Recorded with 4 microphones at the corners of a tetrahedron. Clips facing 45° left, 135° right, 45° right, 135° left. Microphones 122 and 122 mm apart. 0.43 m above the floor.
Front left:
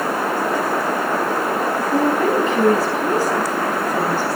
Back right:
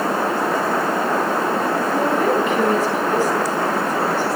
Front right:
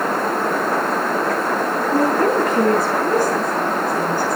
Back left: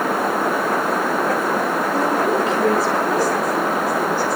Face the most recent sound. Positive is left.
turn(degrees=-5)